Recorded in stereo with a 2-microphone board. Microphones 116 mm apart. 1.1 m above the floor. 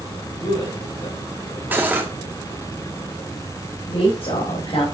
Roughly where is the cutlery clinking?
Centre.